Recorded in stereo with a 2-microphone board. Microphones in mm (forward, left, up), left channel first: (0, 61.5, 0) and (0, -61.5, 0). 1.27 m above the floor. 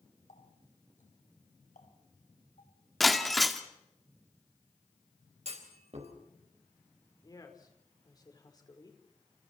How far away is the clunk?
About 4.5 m.